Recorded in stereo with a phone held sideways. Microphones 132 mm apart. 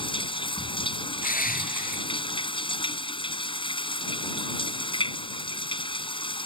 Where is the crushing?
80° left.